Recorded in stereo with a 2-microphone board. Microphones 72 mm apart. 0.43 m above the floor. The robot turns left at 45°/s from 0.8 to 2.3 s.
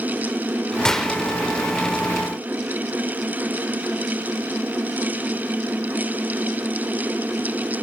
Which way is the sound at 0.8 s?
10° left (ahead or behind).